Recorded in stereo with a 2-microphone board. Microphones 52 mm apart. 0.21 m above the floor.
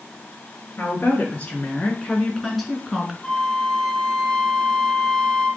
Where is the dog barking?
No dog barking in this recording.